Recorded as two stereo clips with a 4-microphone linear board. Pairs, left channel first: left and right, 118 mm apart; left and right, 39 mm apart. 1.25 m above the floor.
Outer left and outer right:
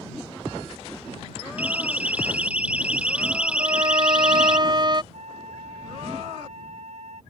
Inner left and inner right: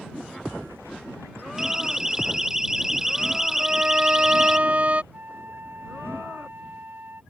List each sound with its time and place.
1.6 s a siren: 15° right (ahead or behind); by 4.6 s 10° right (ahead or behind)
3.6 s a violin: 40° right (ahead or behind)
5.1 s a flute: 85° right